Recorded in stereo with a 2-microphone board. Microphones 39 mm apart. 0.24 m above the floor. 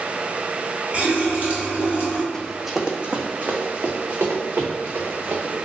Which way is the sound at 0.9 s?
40° right (ahead or behind).